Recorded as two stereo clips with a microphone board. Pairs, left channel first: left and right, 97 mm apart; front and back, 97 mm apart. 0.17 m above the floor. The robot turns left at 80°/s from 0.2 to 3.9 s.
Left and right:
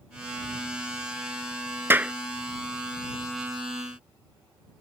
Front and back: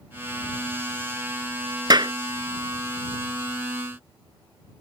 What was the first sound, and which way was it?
A clap, 150° right.